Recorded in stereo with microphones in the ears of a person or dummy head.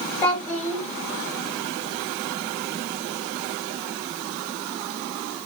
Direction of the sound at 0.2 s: 10° left (ahead or behind).